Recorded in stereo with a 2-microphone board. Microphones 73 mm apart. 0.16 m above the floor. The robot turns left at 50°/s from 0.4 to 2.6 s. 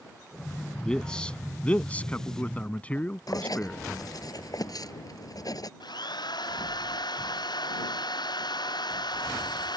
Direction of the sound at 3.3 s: 65° left (ahead or behind).